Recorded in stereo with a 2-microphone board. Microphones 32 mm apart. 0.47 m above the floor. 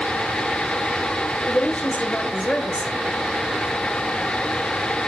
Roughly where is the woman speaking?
Left.